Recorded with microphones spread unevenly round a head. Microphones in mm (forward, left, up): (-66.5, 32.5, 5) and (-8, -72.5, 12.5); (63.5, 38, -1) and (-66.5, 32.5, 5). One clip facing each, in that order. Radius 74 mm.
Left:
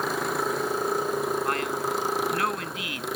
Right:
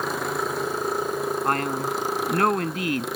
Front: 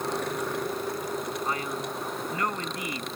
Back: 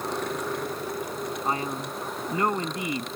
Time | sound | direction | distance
1.4 | a man speaking | 110° right | ?